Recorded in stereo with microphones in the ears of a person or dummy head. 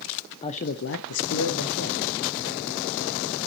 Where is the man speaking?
30° left (ahead or behind), 0.5 m; by 3.4 s 60° left (ahead or behind), 2 m.